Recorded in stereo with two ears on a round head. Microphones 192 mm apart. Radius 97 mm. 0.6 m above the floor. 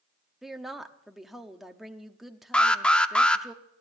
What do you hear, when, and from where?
0.4 s a woman speaking: centre (ahead or behind), 0.8 m
2.5 s an alarm: 5° left (ahead or behind), 0.6 m